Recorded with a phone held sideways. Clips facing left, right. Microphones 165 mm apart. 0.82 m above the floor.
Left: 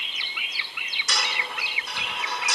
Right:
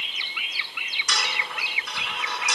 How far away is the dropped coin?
About 4.5 m.